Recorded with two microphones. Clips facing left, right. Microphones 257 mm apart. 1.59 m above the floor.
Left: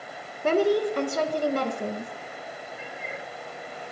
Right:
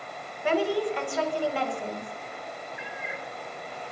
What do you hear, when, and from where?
0.4 s a woman speaking: 45° left (ahead or behind), 2.0 m
2.8 s a cat meowing: 40° left (ahead or behind), 2.5 m